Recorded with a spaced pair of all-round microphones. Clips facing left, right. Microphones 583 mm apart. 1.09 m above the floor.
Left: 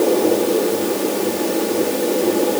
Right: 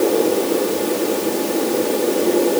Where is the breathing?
I don't hear breathing.